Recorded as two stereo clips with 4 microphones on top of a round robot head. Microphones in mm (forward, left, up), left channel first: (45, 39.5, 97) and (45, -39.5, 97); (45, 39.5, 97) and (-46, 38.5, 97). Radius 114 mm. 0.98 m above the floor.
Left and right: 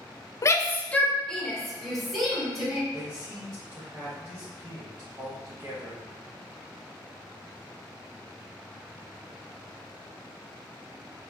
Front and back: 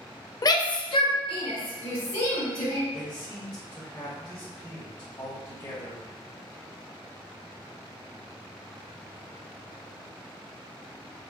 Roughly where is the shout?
Ahead left.